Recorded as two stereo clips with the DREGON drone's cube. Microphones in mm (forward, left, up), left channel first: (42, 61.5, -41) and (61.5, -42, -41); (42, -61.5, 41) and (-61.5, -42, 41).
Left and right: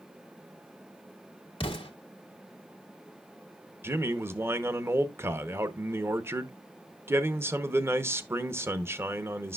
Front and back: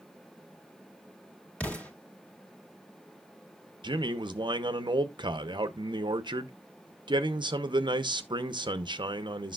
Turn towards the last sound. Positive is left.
turn(degrees=-145)